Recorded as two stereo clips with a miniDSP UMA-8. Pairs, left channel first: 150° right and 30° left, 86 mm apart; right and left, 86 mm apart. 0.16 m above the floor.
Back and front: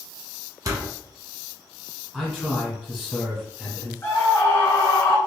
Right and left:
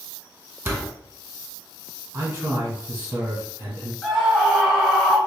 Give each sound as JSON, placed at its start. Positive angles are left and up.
{"t": 0.7, "sound": "a door slam", "azimuth_deg": 45, "distance_m": 0.9}
{"t": 2.1, "sound": "a man speaking", "azimuth_deg": 105, "distance_m": 1.4}
{"t": 4.0, "sound": "a scream", "azimuth_deg": -175, "distance_m": 1.5}